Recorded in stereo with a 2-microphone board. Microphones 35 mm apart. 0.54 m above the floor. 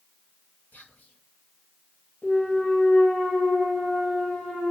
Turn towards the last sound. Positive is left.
turn(degrees=65)  # may be behind; listen again after turning